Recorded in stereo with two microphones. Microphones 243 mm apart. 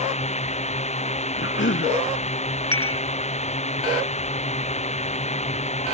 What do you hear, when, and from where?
0.0 s a drone: 25° left (ahead or behind)
1.4 s a cough: 55° left (ahead or behind)
2.7 s dishes clattering: 65° left (ahead or behind)